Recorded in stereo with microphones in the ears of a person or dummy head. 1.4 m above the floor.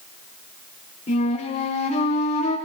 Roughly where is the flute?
Left.